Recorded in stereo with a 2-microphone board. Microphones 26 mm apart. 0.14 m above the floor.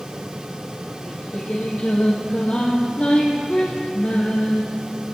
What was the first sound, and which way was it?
Singing, 60° left (ahead or behind).